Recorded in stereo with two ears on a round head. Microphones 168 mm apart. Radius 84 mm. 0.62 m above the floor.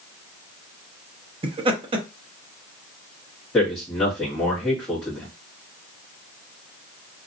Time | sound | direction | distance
1.4 | laughter | 30° right (ahead or behind) | 0.7 m
3.5 | a man speaking | 10° left (ahead or behind) | 1.2 m